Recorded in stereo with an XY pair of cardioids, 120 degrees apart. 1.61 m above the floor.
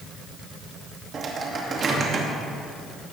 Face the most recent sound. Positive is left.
turn(degrees=-40)